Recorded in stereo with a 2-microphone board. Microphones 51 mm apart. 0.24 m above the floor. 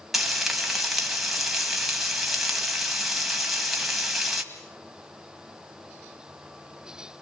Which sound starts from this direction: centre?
Frying, at 0.1 s.